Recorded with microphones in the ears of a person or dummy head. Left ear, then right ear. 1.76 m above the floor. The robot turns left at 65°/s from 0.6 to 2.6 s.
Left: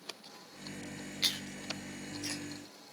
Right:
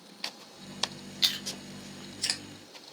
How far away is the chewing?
About 1.9 m.